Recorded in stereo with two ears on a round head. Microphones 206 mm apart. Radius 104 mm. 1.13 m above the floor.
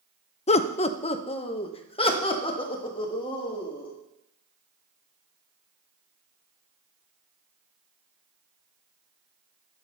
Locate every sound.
0.5 s laughter: 25° left (ahead or behind), 0.5 m